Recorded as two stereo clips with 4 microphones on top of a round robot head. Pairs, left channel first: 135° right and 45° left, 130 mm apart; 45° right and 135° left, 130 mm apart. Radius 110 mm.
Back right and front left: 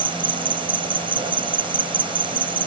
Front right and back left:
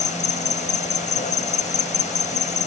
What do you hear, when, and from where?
0.0 s an insect: 10° right